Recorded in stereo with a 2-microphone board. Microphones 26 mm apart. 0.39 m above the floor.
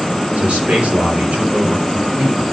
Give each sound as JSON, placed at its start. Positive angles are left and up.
{"t": 0.4, "sound": "a man speaking", "side_deg": -80, "distance_m": 7.0}